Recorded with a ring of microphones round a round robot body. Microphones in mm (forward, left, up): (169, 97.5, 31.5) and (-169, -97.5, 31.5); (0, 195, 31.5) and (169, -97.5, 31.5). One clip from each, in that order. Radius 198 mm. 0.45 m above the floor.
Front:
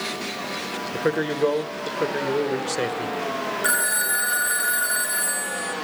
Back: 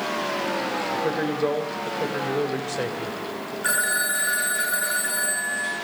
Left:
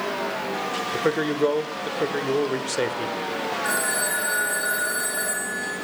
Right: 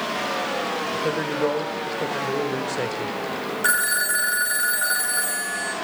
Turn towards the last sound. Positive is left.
turn(degrees=-45)